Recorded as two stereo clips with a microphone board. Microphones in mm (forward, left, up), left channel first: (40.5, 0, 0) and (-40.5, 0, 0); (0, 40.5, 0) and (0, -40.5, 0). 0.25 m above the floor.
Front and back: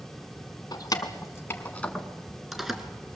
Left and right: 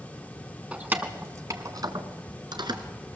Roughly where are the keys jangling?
Ahead.